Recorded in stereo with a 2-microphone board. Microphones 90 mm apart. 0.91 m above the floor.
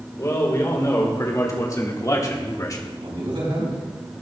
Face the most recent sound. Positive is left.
turn(degrees=-80)